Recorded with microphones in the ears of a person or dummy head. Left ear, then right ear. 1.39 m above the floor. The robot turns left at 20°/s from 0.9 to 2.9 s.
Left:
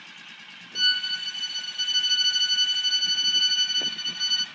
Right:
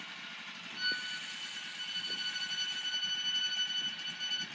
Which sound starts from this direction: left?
A violin, at 0.8 s.